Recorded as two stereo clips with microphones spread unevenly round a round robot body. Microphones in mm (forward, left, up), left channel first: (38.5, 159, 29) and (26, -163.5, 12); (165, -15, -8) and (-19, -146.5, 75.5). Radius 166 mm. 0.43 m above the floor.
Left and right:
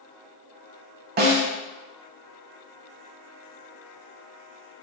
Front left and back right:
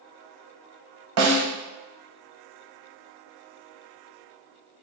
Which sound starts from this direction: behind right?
A snare drum, at 1.2 s.